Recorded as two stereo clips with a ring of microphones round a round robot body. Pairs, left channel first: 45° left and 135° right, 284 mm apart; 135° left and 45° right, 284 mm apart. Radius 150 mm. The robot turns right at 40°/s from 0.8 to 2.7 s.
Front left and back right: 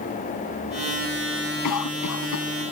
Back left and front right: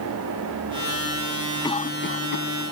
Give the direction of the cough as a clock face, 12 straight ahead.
10 o'clock.